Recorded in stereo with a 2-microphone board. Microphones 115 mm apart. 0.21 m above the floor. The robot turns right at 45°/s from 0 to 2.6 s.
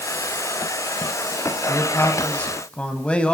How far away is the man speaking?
About 1.0 m.